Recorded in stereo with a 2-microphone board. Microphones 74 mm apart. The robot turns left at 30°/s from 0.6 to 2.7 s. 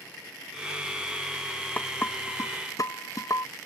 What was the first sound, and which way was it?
Dishes clattering, 20° left (ahead or behind).